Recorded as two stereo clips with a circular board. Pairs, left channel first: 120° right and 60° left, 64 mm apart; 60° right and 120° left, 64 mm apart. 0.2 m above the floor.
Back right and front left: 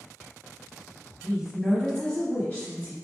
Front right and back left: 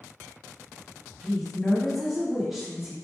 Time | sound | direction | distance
1.2 | a woman speaking | 20° left | 1.2 m